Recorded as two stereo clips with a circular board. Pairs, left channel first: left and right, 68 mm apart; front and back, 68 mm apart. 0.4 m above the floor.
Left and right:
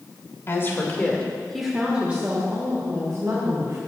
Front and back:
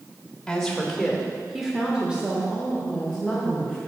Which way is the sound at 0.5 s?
75° left.